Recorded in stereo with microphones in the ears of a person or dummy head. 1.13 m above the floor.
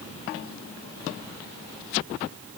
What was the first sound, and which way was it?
Only background noise.